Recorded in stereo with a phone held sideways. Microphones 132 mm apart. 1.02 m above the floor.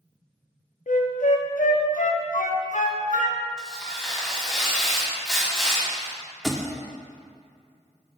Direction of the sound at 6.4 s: Centre (ahead or behind).